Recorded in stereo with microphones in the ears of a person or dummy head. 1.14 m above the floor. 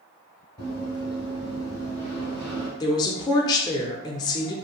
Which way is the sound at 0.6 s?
10° right (ahead or behind).